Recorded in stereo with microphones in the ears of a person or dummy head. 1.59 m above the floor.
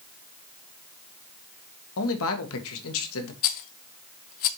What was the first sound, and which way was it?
A man speaking, 75° left (ahead or behind).